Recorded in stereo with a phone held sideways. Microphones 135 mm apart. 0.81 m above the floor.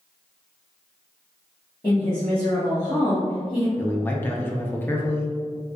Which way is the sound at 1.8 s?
25° left (ahead or behind).